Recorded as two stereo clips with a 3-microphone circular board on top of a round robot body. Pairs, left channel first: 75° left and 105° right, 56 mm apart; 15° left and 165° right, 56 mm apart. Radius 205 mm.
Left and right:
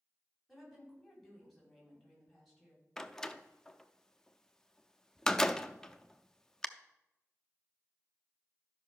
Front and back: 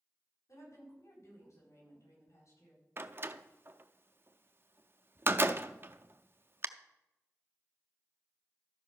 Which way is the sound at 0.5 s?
10° right.